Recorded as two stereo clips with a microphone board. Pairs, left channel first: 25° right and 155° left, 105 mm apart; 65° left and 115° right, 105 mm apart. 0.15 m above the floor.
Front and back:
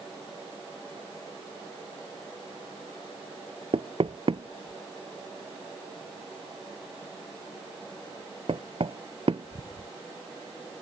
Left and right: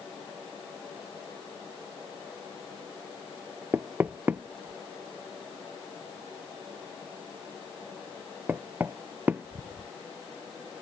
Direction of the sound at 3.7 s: 175° left.